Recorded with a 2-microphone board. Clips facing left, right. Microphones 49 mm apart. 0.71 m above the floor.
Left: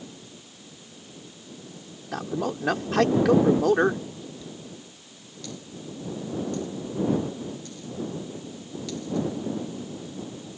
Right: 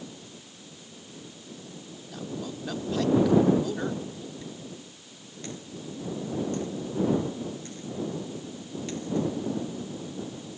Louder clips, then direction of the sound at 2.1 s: Left 8 dB; 65° left (ahead or behind).